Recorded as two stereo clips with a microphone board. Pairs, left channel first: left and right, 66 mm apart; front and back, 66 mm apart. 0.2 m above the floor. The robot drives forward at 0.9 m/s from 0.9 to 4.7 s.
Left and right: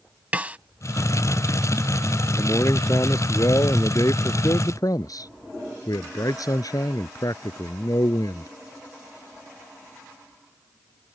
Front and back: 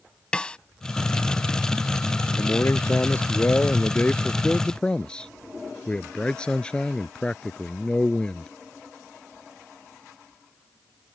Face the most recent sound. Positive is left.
turn(degrees=75)